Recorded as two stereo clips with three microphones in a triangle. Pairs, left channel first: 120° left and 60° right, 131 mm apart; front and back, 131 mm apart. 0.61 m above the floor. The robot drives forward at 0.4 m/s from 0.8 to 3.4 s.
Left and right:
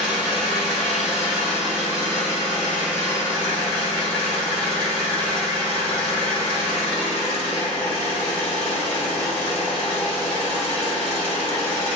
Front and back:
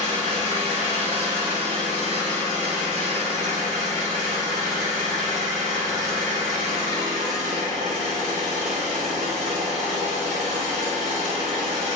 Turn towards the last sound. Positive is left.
turn(degrees=-160)